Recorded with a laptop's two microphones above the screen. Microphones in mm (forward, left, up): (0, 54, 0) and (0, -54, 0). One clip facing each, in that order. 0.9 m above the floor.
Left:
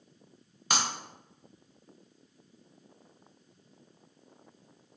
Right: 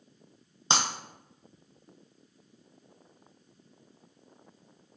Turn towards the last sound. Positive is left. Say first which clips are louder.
# right 2 dB
turn(degrees=-25)  # may be behind; listen again after turning